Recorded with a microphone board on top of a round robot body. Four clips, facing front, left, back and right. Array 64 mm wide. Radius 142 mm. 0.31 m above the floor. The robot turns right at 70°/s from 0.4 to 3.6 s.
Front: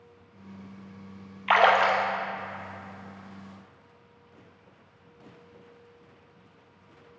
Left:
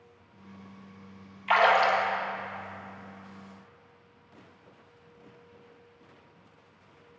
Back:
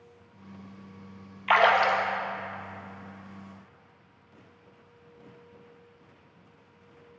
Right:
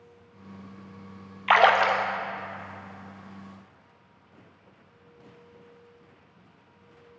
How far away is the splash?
About 1.0 m.